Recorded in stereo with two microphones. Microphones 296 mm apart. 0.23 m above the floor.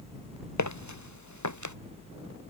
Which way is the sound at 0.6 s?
70° left (ahead or behind).